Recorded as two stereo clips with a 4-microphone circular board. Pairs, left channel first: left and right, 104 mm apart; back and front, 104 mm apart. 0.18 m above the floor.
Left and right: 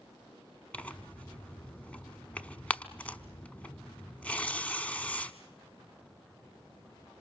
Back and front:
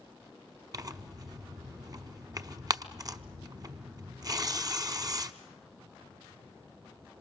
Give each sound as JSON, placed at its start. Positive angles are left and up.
{"t": 0.7, "sound": "tearing paper", "azimuth_deg": 20, "distance_m": 0.9}